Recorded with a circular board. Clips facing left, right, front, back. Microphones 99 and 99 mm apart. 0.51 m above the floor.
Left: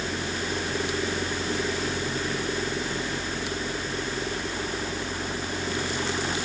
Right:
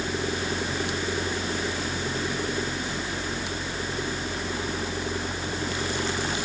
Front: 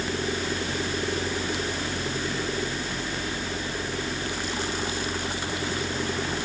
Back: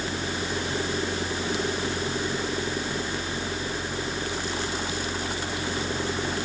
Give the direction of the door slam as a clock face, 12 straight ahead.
I don't hear a door slam.